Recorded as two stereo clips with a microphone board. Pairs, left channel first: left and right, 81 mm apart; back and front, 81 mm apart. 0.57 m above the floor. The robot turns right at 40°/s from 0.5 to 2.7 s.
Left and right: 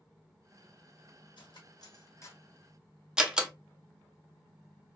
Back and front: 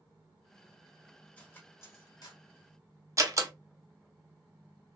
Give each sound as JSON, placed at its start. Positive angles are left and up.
{"t": 1.4, "sound": "cutlery clinking", "azimuth_deg": 105, "distance_m": 0.9}
{"t": 3.2, "sound": "a door slam", "azimuth_deg": -15, "distance_m": 0.6}